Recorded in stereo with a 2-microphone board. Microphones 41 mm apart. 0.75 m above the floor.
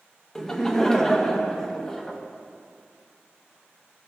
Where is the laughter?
10° left (ahead or behind), 0.9 m.